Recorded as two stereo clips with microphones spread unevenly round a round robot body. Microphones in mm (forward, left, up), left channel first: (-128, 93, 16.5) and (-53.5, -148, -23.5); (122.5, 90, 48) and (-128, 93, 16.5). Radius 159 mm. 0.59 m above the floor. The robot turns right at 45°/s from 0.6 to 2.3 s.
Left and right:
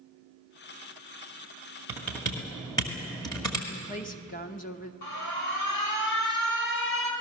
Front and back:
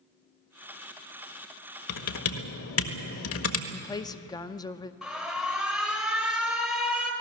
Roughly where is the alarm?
Left.